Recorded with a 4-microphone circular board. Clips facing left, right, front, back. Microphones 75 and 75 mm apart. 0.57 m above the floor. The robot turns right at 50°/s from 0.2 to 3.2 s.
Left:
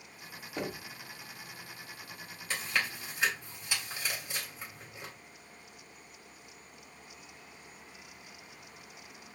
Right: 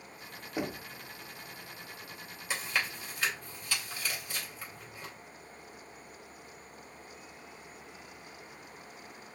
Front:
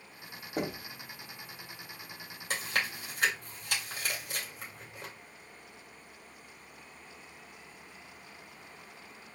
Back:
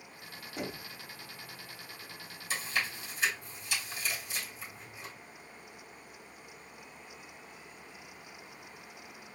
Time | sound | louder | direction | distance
0.6 | knocking | right 2 dB, front 5 dB | 15° right | 0.8 m
2.5 | chewing | even, front 1 dB | 10° right | 2.5 m